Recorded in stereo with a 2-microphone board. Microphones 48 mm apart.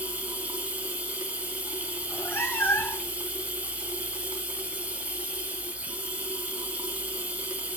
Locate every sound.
0.0 s running water: 35° right (ahead or behind), 1.6 m
2.0 s a cat meowing: 55° left (ahead or behind), 1.6 m